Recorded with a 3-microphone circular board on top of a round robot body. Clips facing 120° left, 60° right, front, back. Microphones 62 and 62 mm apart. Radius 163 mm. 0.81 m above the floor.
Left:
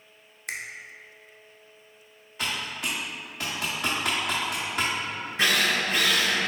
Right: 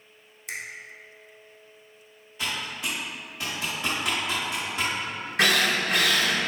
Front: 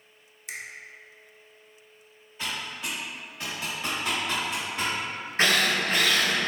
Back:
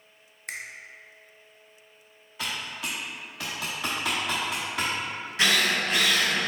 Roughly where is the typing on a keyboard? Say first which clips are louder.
Even, even; behind.